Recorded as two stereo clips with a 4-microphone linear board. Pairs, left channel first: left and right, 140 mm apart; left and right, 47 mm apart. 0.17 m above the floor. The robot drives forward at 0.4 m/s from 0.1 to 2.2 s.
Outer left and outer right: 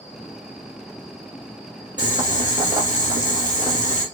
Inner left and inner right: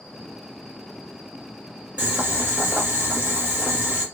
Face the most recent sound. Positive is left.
turn(degrees=-30)  # may be behind; listen again after turning